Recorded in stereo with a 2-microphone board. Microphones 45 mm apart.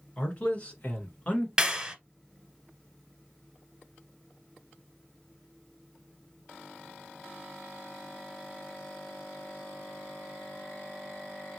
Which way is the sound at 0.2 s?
25° left (ahead or behind).